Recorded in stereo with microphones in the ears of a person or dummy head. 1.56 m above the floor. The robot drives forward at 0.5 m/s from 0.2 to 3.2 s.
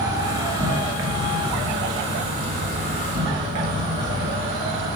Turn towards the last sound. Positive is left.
turn(degrees=-25)  # may be behind; listen again after turning